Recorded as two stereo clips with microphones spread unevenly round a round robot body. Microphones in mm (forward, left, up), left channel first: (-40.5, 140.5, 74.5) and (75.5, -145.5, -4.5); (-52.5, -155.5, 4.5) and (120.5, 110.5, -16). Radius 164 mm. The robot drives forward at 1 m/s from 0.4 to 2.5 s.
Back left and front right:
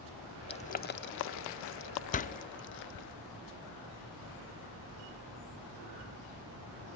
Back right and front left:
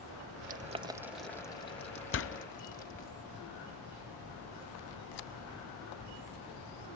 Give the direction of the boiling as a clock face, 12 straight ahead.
11 o'clock.